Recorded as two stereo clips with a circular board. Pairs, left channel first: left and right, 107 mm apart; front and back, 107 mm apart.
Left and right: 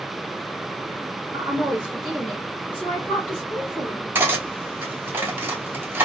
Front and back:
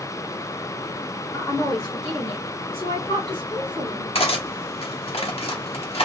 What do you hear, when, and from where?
1.3 s a woman speaking: 40° right, 1.2 m; by 4.0 s 40° left, 2 m
4.2 s cutlery clinking: 20° right, 0.8 m